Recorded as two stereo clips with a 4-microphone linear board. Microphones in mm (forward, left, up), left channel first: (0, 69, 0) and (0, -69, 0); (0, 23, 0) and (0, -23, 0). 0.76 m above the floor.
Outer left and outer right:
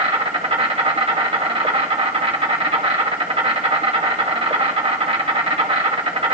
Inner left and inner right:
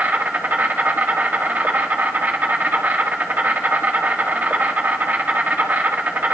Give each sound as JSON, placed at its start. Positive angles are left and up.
{"t": 0.0, "sound": "an insect", "side_deg": -40, "distance_m": 1.4}